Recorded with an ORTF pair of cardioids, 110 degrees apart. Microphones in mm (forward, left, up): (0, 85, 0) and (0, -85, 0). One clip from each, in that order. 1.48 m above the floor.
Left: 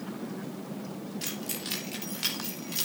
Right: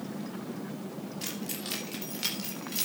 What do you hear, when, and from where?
1.2 s keys jangling: 10° left, 3 m; by 2.9 s straight ahead, 4 m